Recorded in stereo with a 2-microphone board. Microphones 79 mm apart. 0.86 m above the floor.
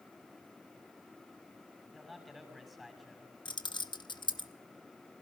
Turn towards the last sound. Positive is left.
turn(degrees=75)  # may be behind; listen again after turning